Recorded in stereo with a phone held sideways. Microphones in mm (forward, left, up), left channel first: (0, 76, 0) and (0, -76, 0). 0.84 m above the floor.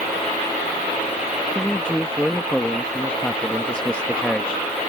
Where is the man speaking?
5° left (ahead or behind).